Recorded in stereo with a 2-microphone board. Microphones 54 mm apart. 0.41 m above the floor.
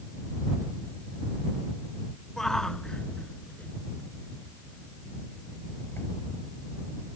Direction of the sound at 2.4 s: 10° left (ahead or behind).